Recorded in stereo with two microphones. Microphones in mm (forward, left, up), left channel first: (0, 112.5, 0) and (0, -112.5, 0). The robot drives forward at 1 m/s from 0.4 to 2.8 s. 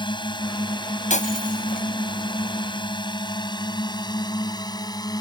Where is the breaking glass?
35° left (ahead or behind); by 1.9 s 40° left (ahead or behind).